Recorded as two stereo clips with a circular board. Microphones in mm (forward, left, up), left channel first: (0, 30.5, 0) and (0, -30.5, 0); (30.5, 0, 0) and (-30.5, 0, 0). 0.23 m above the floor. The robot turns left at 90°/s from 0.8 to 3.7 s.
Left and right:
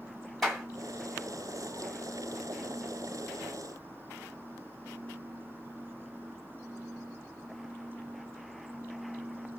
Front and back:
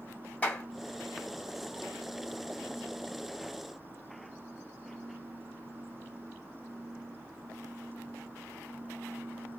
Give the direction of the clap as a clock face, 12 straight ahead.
12 o'clock.